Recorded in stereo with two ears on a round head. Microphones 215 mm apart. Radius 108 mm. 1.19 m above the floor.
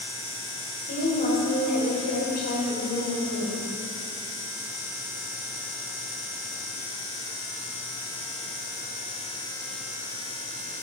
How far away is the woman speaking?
About 5 m.